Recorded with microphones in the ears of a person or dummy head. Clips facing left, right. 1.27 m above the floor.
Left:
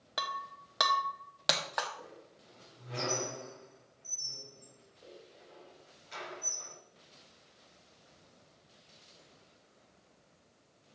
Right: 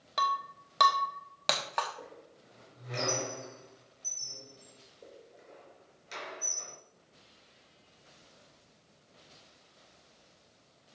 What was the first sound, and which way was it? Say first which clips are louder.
Breaking glass: right 7 dB; 5° left (ahead or behind).